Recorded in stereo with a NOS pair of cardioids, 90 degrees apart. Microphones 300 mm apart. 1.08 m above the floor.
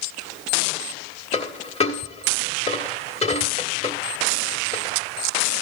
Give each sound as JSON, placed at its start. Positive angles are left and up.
{"t": 1.3, "sound": "a dropped coin", "azimuth_deg": 20, "distance_m": 1.4}